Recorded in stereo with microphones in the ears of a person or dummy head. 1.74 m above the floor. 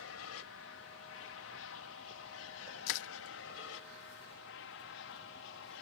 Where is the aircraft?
65° left (ahead or behind); by 5.8 s 60° left (ahead or behind).